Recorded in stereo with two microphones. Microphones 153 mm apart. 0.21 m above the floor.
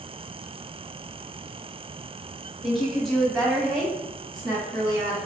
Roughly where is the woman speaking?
Centre.